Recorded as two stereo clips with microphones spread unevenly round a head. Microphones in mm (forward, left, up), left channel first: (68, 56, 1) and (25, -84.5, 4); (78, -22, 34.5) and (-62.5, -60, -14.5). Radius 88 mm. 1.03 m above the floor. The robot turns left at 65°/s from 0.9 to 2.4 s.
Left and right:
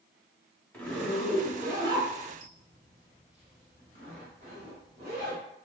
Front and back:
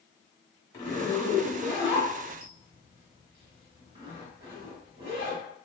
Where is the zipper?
5° right, 1.0 m; by 5.4 s 105° right, 1.0 m.